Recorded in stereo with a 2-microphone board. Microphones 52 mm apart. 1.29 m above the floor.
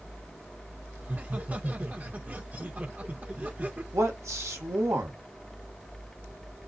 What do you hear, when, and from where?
1.0 s laughter: 30° right (ahead or behind), 1.1 m
3.9 s a man speaking: 70° right (ahead or behind), 1.5 m